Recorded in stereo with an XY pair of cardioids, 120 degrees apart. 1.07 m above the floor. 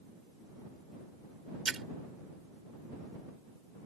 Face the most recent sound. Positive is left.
turn(degrees=-30)